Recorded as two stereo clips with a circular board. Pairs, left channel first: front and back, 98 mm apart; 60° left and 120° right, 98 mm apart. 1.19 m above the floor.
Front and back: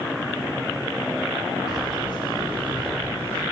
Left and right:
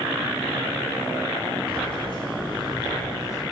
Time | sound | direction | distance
1.7 | keys jangling | 40° left | 4.5 m